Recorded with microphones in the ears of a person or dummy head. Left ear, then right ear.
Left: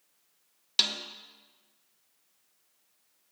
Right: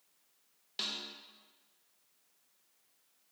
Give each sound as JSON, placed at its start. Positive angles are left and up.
{"t": 0.8, "sound": "a snare drum", "side_deg": 40, "distance_m": 0.6}